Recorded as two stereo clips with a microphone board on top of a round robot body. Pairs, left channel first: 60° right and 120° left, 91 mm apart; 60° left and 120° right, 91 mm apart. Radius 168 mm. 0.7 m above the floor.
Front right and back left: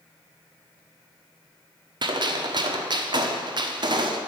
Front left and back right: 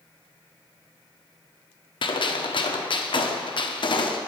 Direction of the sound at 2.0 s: 85° left.